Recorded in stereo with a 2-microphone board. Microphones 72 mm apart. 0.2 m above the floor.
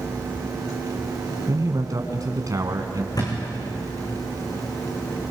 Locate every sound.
1.5 s a man speaking: 50° right (ahead or behind), 1.5 m
3.1 s a thud: 55° left (ahead or behind), 5.5 m